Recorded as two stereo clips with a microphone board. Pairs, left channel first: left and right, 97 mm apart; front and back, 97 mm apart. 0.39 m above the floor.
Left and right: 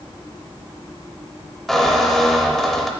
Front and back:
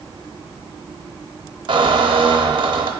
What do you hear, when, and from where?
1.7 s a squeak: straight behind, 0.6 m